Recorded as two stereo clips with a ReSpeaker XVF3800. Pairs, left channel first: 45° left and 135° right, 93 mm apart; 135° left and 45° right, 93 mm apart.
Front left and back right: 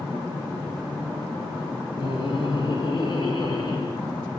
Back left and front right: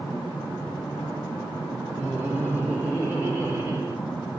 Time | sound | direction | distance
2.0 | laughter | 25° left | 3 m